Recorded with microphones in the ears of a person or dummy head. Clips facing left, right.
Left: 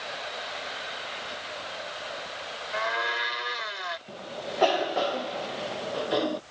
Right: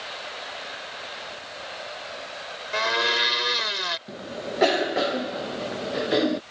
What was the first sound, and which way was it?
A blender, 55° right (ahead or behind).